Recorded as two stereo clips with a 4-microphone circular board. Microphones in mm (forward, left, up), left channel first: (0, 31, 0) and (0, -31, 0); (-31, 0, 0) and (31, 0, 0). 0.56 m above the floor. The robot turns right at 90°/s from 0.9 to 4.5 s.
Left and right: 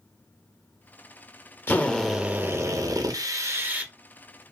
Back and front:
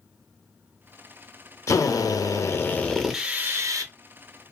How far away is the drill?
About 0.7 m.